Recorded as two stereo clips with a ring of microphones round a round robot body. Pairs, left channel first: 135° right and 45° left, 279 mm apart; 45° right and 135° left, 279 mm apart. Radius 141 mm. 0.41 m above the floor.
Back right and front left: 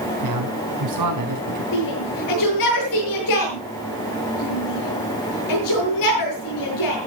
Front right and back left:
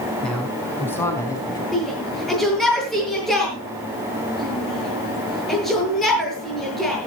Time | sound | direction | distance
0.2 | a man speaking | 40° left | 5 m
1.7 | a shout | 135° right | 7.5 m